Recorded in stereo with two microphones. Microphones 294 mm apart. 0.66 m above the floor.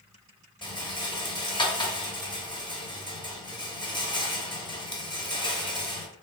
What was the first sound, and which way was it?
A rattle, 15° left (ahead or behind).